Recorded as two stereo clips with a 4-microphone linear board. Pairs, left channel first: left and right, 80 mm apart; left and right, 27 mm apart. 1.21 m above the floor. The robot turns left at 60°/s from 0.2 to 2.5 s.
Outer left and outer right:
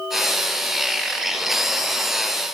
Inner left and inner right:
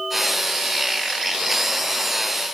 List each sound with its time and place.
Only background noise.